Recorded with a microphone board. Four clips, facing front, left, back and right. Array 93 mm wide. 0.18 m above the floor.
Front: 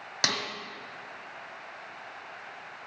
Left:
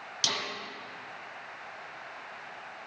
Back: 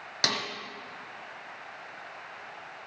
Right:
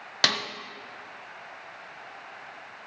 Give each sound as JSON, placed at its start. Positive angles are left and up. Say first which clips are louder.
{"t": 0.2, "sound": "a snare drum", "louder": "right 8 dB, even", "azimuth_deg": -85, "distance_m": 1.5}